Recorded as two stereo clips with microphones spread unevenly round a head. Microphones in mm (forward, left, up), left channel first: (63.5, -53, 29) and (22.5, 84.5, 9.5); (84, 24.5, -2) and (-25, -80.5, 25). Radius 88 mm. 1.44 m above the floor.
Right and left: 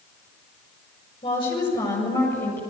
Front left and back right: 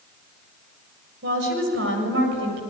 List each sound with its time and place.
1.2 s a woman speaking: 135° right, 7 m; by 2.6 s 150° right, 7.5 m